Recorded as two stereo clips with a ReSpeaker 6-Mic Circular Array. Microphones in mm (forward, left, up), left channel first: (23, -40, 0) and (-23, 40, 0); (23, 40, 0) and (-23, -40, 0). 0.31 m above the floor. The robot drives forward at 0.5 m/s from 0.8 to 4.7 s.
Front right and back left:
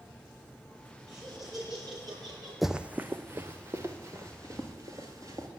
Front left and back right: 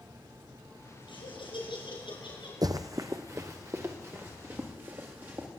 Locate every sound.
1.1 s laughter: 75° left, 7 m; by 2.5 s 80° left, 7 m
2.6 s running footsteps: 150° right, 0.5 m; by 5.5 s 170° left, 3 m